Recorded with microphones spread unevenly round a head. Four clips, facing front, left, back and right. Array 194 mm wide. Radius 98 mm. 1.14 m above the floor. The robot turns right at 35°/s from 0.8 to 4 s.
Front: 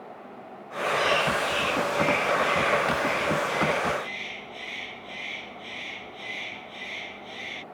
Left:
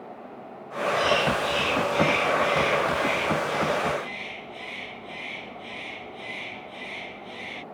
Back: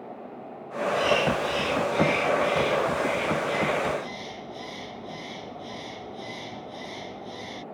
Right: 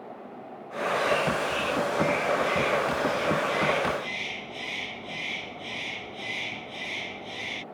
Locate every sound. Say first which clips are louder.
0.9 s a bird: left 2 dB, back 1 dB; 105° left; by 7.6 s 150° right